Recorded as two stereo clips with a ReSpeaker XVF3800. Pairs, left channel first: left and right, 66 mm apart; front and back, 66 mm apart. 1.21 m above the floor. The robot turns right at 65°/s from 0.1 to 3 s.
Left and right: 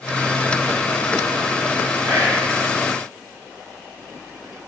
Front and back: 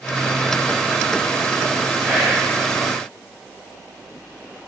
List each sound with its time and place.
2.0 s whispering: 115° right, 0.9 m; by 2.5 s 85° right, 0.9 m